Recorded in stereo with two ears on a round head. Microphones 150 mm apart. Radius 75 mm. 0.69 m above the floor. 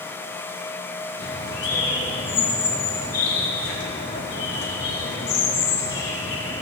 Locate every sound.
1.2 s a bird: 80° left, 5.5 m